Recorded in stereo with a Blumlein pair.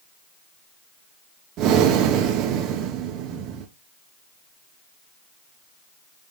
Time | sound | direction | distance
1.6 | breathing | 35° right | 0.6 m